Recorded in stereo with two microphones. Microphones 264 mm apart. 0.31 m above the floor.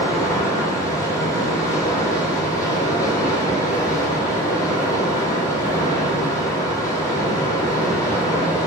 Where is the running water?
10° left (ahead or behind), 0.9 m.